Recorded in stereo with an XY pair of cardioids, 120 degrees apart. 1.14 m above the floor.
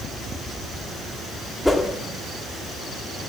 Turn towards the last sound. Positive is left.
turn(degrees=5)